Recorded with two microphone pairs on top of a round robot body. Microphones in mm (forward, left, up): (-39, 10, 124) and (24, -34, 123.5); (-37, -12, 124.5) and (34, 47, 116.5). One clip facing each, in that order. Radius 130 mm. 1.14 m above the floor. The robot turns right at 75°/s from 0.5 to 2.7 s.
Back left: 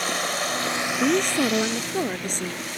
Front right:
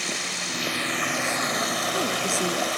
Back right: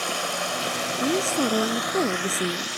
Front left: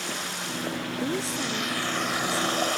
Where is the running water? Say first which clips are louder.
Back left 6 dB, back right 6 dB; 170° right; by 2.8 s 5° right.